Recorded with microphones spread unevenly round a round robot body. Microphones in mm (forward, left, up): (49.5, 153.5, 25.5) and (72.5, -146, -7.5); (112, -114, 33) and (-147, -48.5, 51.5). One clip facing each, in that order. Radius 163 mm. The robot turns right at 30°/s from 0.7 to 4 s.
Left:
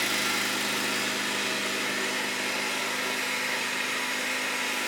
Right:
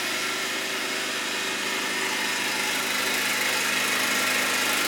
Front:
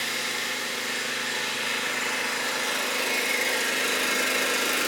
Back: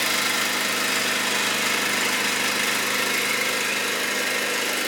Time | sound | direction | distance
0.0 | an engine running | 160° left | 0.8 m